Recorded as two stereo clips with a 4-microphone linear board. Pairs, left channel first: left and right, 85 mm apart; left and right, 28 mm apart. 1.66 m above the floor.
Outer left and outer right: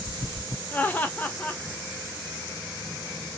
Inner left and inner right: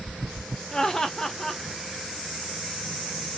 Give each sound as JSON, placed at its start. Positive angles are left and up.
{"t": 0.7, "sound": "laughter", "side_deg": 20, "distance_m": 0.7}